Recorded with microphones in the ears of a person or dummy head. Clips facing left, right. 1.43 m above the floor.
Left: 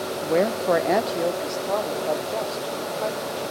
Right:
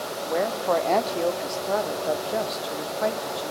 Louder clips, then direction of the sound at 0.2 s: Left 4 dB; 45° left (ahead or behind).